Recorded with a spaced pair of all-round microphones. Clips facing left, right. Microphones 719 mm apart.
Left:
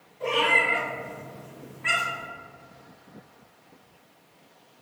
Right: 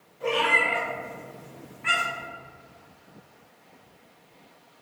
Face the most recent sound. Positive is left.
turn(degrees=5)  # may be behind; listen again after turning